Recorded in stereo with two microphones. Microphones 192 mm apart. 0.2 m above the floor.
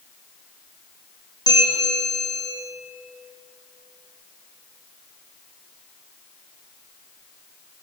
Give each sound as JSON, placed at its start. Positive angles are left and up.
{"t": 1.5, "sound": "a bell", "side_deg": 20, "distance_m": 6.5}